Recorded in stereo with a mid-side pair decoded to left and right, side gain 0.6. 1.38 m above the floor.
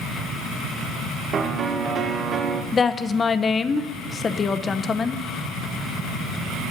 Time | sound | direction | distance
1.3 | a piano | 45° right | 1.2 m
2.7 | a woman speaking | 25° left | 0.8 m